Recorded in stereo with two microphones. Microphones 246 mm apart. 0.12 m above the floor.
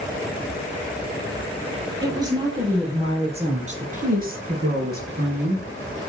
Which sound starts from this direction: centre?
A woman speaking, at 2.0 s.